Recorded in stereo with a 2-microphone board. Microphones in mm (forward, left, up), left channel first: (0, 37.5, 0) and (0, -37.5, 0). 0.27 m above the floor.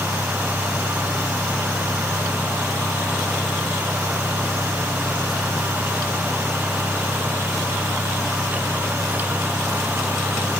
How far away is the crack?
I don't hear a crack.